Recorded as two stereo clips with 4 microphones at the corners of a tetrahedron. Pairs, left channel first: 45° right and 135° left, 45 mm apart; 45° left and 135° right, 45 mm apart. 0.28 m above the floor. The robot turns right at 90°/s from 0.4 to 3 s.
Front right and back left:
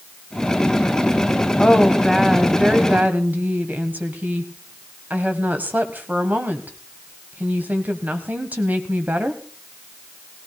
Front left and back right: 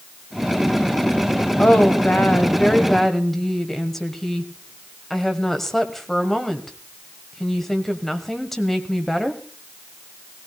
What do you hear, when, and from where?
1.6 s a woman speaking: straight ahead, 1.4 m; by 9.4 s 125° left, 1.4 m